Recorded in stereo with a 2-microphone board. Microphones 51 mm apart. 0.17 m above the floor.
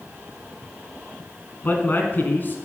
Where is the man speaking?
40° left (ahead or behind), 2.0 m.